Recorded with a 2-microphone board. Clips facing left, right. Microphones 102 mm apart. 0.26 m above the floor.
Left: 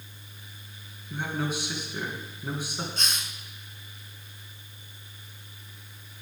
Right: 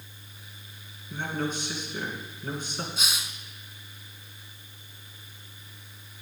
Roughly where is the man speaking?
Centre.